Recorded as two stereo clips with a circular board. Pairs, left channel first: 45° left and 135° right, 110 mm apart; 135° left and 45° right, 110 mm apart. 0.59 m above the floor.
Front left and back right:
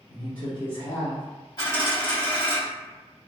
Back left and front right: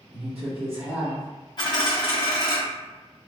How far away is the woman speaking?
About 1.0 m.